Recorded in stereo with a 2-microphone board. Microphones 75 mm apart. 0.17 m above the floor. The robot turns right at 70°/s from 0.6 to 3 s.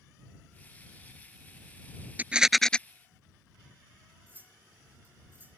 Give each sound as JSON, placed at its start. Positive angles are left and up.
{"t": 2.2, "sound": "a rattle", "azimuth_deg": -25}
{"t": 4.3, "sound": "cutlery clinking", "side_deg": -25}